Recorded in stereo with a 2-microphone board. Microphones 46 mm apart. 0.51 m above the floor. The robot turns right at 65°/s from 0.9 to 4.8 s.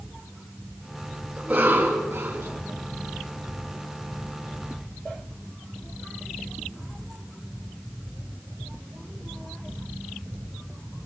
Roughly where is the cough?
Behind.